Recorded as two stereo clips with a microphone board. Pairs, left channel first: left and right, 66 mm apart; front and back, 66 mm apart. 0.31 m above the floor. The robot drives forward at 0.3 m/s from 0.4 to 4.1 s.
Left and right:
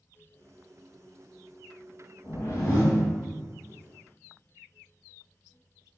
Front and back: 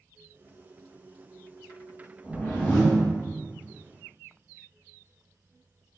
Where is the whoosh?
55° left, 1.4 m; by 3.1 s 70° left, 1.3 m.